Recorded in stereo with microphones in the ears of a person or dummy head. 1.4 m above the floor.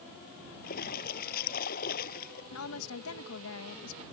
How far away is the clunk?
No clunk in this recording.